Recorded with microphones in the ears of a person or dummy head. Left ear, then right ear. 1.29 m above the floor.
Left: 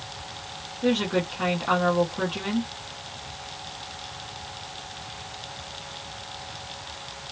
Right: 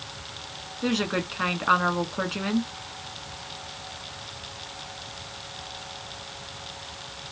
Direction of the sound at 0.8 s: 85° right.